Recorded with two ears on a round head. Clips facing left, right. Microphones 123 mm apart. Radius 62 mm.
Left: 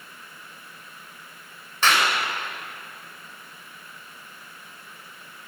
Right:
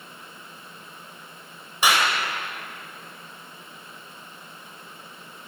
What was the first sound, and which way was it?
A clap, 10° right (ahead or behind).